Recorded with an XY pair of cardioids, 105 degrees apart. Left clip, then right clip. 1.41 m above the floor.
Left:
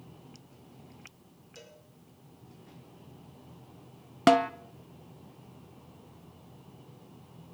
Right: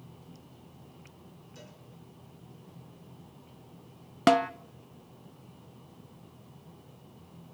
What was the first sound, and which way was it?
A cowbell, 30° left.